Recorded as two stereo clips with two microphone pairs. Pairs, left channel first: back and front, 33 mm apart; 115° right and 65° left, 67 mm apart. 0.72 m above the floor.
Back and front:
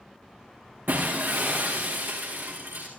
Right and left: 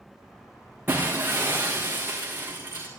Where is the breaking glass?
5° left, 6.5 m.